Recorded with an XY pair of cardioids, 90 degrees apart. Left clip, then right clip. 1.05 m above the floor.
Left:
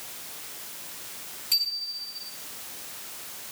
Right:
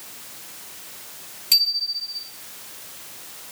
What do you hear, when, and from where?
1.5 s a bicycle bell: 60° right, 7 m